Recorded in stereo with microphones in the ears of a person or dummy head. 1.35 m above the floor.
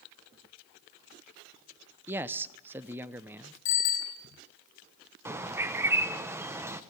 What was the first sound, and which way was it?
A man speaking, 10° right (ahead or behind).